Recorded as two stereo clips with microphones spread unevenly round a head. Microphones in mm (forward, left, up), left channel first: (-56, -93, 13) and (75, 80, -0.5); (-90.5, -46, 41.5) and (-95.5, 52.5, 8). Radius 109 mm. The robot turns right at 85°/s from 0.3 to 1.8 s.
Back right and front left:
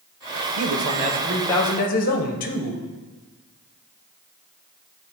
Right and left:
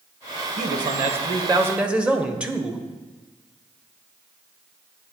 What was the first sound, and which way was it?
A man speaking, 75° left.